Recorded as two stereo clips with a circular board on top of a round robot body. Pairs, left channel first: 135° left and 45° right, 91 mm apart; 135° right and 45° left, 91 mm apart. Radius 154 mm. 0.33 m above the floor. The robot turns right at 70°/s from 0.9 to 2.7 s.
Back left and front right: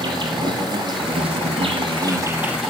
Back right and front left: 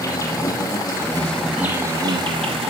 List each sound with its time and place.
0.0 s an insect: 80° right, 5 m; by 2.7 s 45° left, 5 m